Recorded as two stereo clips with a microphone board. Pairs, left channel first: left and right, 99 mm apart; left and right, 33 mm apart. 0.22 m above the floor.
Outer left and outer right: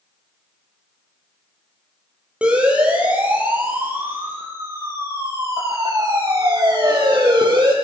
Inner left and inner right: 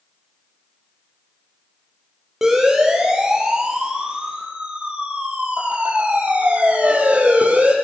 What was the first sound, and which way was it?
A siren, 10° right (ahead or behind).